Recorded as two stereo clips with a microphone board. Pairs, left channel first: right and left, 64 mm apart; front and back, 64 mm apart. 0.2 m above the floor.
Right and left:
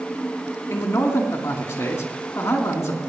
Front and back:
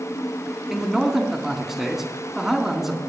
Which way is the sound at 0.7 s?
100° right.